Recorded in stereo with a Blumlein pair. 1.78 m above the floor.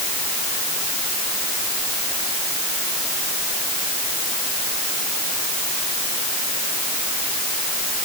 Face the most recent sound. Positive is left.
No sound to turn to.